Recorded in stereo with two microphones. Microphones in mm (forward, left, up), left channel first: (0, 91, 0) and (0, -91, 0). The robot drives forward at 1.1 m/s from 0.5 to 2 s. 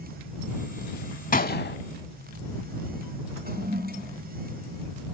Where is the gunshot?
50° left (ahead or behind), 0.8 m; by 1.8 s 70° left (ahead or behind), 0.6 m.